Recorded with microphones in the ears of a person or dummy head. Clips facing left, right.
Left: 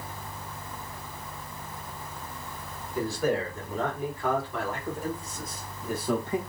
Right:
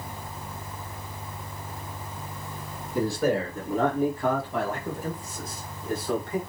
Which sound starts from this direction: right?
A man speaking, at 3.0 s.